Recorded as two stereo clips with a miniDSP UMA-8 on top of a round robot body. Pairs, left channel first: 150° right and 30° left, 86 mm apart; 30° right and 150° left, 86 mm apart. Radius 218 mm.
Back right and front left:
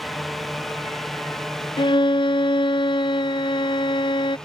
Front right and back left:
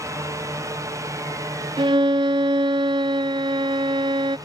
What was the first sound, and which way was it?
A drone, 120° left.